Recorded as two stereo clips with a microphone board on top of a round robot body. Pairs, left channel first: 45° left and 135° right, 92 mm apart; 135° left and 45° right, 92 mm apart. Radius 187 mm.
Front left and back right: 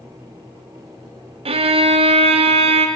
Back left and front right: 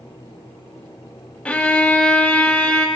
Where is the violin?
145° right, 0.7 m.